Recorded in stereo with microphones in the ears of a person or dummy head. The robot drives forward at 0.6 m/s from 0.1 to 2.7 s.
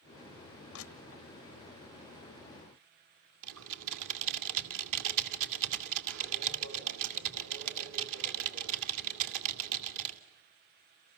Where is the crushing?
80° left, 1.6 m; by 1.2 s 70° left (ahead or behind), 1.7 m.